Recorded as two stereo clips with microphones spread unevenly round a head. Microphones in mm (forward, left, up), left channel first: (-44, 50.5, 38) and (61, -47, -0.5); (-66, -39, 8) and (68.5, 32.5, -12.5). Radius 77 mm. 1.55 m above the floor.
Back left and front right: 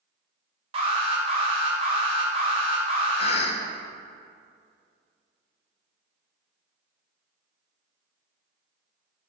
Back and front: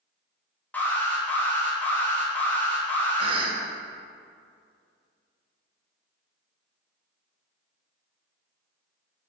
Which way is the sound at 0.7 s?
70° right.